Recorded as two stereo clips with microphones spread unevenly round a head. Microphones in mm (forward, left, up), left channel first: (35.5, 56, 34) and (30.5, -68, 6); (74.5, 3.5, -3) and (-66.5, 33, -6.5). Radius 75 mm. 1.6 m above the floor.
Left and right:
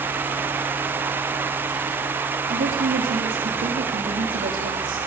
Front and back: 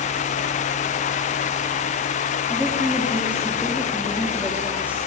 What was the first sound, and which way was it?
A woman speaking, 110° right.